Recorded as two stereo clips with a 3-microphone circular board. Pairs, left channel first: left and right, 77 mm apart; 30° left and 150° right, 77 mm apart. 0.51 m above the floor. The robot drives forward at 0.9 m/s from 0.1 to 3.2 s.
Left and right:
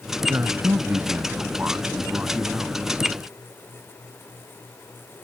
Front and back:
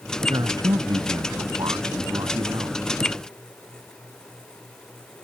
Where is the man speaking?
145° right; by 3.1 s 160° right.